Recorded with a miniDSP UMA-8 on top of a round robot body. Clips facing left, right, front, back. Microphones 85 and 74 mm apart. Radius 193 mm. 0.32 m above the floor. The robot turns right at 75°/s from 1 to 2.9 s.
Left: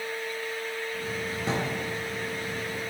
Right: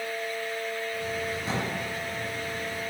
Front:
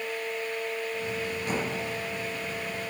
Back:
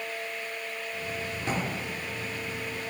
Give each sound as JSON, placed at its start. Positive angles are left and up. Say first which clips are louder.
{"t": 1.4, "sound": "a drawer", "louder": "left 2 dB, back 1 dB", "azimuth_deg": 110, "distance_m": 4.0}